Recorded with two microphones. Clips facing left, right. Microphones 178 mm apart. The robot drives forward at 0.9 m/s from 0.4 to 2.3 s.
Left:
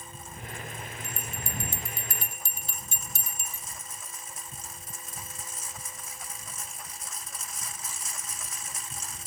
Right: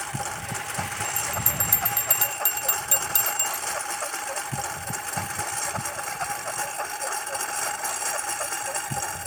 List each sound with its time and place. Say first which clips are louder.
0.0 s a lawn mower: right 10 dB; 85° right; by 9.3 s 65° right (ahead or behind)
1.0 s a bell: right 7 dB; 70° right (ahead or behind); by 3.6 s 80° right